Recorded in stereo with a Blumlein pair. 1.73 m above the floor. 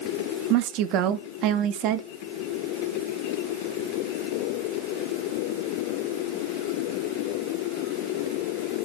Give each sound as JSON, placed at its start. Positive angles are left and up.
{"t": 0.5, "sound": "a woman speaking", "azimuth_deg": -40, "distance_m": 0.8}